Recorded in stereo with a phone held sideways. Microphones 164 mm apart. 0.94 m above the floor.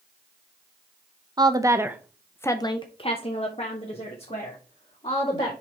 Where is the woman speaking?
25° right (ahead or behind), 0.9 m; by 5.5 s 40° left (ahead or behind), 2.5 m.